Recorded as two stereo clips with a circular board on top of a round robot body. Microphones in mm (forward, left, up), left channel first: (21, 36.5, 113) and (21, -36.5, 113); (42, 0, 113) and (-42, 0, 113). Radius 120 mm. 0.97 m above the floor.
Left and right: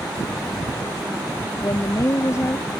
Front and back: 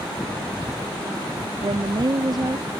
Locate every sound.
1.6 s a woman speaking: 140° left